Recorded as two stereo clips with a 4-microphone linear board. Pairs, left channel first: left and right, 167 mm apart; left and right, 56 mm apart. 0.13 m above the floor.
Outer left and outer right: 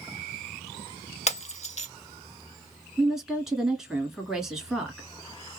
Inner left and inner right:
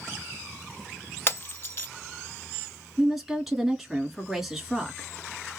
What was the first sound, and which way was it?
Breaking glass, 40° left (ahead or behind).